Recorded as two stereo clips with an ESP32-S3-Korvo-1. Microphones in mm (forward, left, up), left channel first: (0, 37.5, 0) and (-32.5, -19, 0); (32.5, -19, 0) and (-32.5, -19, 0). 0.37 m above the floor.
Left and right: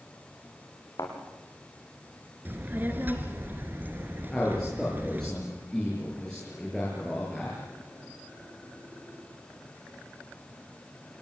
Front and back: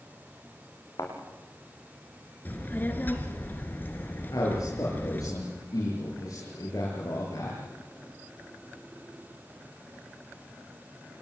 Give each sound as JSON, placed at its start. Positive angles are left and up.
{"t": 1.0, "sound": "a thud", "azimuth_deg": 30, "distance_m": 6.5}
{"t": 2.5, "sound": "a child speaking", "azimuth_deg": -60, "distance_m": 3.0}
{"t": 4.3, "sound": "a man speaking", "azimuth_deg": -20, "distance_m": 7.0}